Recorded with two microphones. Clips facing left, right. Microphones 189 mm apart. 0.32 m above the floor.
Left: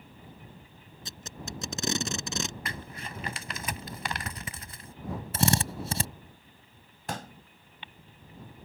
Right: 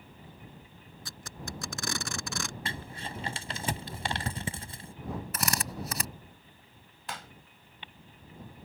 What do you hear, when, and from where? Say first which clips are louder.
1.1 s tape being pulled: left 1 dB; 20° left (ahead or behind)
2.6 s crumpling: right 1 dB; 30° right (ahead or behind)
5.3 s a drill: left 11 dB; 30° left (ahead or behind)
7.1 s a pop: left 6 dB; 45° left (ahead or behind)